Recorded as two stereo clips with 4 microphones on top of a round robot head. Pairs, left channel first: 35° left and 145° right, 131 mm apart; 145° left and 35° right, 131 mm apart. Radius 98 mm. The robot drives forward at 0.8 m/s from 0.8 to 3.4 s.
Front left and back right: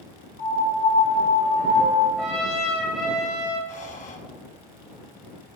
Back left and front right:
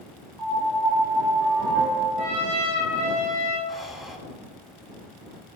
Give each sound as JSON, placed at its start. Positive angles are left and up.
{"t": 0.4, "sound": "a piano", "azimuth_deg": 35, "distance_m": 2.5}
{"t": 2.2, "sound": "a trumpet", "azimuth_deg": -50, "distance_m": 4.5}
{"t": 3.7, "sound": "breathing", "azimuth_deg": 55, "distance_m": 1.7}